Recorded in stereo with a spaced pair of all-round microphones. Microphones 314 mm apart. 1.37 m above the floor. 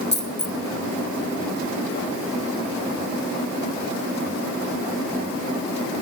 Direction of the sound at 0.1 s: 35° left (ahead or behind).